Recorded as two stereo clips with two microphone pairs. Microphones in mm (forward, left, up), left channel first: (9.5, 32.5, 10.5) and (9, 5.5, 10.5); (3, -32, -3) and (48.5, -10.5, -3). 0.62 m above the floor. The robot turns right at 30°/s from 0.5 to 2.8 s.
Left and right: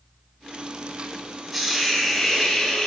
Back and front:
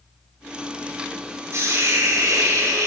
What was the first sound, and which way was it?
A hiss, 20° right.